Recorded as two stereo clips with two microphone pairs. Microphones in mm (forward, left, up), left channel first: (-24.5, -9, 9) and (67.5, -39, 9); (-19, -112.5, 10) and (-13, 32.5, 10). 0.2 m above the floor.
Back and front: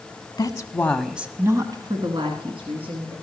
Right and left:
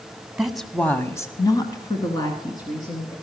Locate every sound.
0.4 s a woman speaking: 175° left, 1.2 m; by 3.1 s 30° right, 3 m